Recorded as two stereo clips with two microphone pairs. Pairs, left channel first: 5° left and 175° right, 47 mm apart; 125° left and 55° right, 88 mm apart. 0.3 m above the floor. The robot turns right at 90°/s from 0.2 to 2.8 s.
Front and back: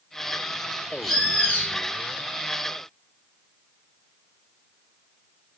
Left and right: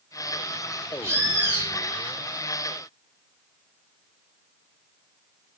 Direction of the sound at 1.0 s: 80° right.